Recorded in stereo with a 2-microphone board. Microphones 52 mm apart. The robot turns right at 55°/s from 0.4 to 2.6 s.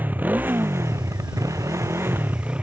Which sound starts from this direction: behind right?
A motorcycle, at 0.0 s.